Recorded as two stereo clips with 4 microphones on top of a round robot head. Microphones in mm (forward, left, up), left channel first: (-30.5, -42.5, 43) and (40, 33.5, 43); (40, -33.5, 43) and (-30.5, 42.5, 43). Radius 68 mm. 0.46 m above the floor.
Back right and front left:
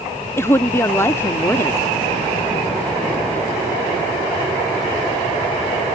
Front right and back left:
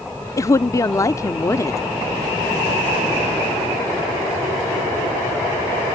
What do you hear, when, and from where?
0.4 s a woman speaking: 80° right